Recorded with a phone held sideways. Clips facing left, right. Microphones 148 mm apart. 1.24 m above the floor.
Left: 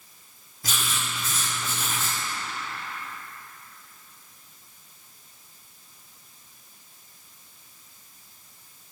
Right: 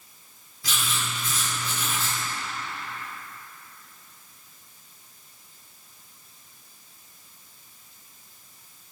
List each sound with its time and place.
0.6 s writing: 45° left (ahead or behind), 1.3 m